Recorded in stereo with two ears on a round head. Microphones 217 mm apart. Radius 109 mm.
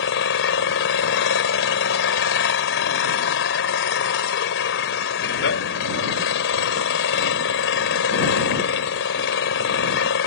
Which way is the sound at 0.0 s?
50° left (ahead or behind).